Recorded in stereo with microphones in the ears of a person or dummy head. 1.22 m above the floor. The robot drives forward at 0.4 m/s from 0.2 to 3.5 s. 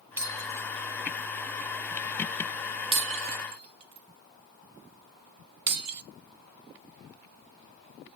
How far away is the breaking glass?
About 2 m.